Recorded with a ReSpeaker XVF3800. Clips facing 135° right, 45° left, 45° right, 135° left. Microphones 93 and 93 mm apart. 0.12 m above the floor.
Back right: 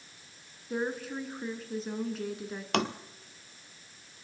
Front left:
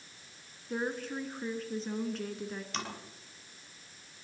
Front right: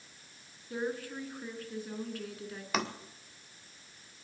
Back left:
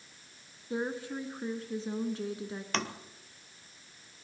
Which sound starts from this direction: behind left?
A woman speaking, at 0.7 s.